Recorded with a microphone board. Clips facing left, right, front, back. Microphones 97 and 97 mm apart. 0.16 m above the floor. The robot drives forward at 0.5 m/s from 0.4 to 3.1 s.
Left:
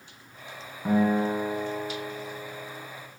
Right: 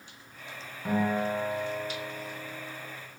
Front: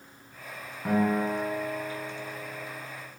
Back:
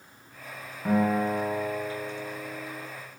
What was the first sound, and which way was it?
A guitar, 80° left.